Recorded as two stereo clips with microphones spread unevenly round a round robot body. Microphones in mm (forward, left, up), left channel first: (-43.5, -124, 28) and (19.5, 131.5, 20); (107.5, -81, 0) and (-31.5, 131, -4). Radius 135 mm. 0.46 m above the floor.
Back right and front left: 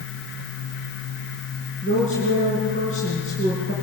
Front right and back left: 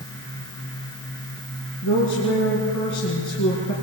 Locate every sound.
1.8 s a woman speaking: 40° right, 5 m